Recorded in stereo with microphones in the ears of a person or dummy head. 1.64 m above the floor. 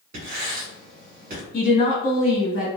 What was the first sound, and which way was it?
Writing, 45° right (ahead or behind).